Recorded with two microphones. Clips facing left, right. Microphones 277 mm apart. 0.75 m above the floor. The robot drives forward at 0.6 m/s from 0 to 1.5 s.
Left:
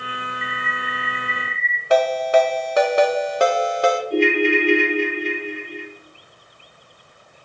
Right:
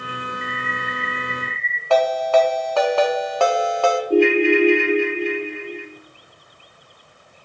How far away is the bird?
About 0.7 m.